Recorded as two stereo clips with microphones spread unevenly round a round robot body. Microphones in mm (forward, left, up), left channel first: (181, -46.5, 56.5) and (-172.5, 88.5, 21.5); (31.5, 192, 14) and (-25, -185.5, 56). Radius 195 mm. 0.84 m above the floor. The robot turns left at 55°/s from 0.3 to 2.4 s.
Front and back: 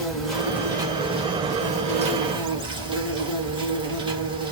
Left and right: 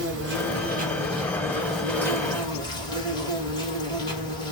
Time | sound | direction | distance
0.0 | an insect | 125° right | 1.1 m